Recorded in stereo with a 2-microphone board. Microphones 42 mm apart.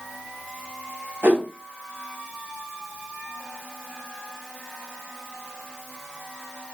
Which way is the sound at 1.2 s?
60° right (ahead or behind).